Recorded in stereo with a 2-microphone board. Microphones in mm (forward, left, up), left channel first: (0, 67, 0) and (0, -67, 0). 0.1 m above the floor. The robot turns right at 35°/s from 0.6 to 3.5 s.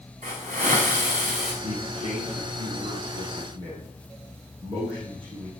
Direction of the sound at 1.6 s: 115° right.